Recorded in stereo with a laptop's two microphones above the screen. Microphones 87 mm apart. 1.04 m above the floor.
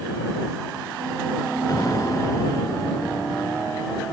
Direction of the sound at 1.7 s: 40° left (ahead or behind).